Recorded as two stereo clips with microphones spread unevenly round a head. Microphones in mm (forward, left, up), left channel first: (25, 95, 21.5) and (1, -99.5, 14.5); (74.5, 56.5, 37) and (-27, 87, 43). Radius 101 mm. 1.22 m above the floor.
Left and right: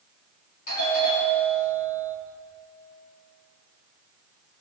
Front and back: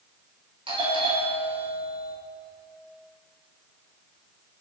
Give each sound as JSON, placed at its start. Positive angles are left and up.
{"t": 0.7, "sound": "a doorbell", "azimuth_deg": 130, "distance_m": 6.5}